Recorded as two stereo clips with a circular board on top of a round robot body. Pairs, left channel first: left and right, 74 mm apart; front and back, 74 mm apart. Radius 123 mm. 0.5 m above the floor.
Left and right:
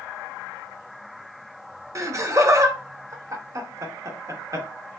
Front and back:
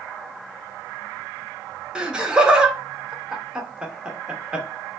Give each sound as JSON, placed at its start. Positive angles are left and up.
{"t": 1.9, "sound": "laughter", "azimuth_deg": -105, "distance_m": 1.2}